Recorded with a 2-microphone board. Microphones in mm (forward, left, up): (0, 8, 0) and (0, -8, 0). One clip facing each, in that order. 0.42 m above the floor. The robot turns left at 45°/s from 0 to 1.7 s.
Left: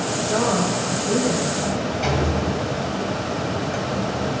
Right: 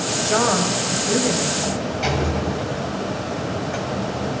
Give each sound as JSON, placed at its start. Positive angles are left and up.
{"t": 0.2, "sound": "a woman speaking", "azimuth_deg": -100, "distance_m": 2.5}
{"t": 1.6, "sound": "a sliding door", "side_deg": -20, "distance_m": 1.7}